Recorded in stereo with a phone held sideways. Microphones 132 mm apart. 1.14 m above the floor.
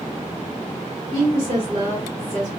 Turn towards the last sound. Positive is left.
turn(degrees=-55)  # may be behind; listen again after turning